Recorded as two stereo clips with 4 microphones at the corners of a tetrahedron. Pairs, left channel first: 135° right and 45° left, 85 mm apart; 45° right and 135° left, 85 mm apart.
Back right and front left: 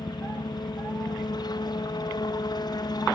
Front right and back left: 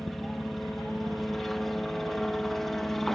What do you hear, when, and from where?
0.0 s a helicopter: 130° right